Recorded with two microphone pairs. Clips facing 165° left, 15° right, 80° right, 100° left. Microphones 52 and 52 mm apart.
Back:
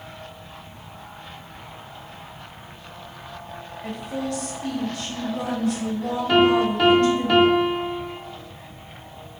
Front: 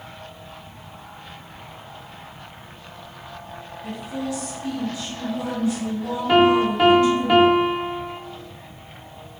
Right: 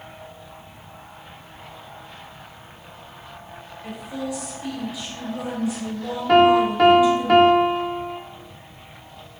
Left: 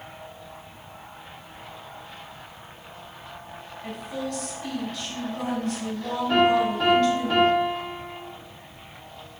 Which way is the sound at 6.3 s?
90° right.